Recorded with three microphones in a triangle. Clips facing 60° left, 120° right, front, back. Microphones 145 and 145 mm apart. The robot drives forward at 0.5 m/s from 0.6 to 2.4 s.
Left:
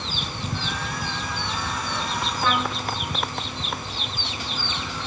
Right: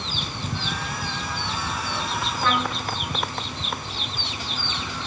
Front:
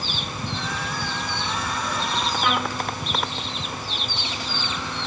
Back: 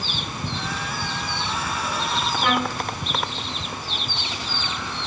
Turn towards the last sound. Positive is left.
turn(degrees=140)